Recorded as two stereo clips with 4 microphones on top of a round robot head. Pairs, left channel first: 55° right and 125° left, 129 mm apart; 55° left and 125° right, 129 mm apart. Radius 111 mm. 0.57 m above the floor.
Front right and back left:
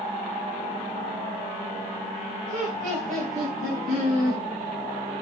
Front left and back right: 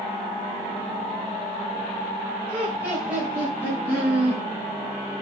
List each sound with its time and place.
2.5 s laughter: 155° left, 3 m